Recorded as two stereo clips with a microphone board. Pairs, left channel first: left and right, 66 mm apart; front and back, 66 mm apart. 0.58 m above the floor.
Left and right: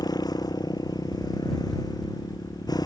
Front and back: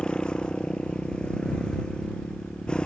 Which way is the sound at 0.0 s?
75° left.